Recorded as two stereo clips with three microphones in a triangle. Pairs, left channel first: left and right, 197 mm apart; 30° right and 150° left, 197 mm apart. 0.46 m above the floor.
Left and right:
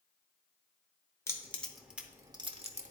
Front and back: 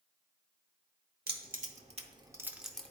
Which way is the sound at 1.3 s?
160° left.